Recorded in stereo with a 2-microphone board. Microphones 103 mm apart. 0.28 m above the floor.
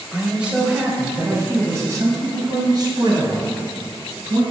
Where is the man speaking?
Centre (ahead or behind), 1.5 m; by 4.4 s 55° right (ahead or behind), 3 m.